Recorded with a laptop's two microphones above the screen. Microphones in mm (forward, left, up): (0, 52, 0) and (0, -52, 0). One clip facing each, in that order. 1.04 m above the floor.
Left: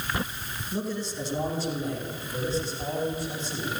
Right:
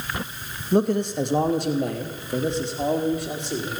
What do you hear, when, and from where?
0.7 s a man speaking: 60° right (ahead or behind), 1.1 m; by 3.8 s 70° right (ahead or behind), 3 m